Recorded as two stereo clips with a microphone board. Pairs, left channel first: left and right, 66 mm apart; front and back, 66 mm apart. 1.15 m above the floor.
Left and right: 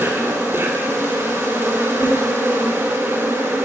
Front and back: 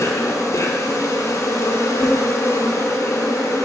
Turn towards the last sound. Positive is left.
turn(degrees=-40)